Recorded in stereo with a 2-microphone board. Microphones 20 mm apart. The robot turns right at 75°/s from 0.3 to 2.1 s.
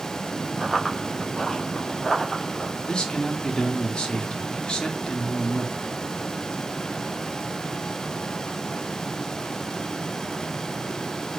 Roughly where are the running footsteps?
Right.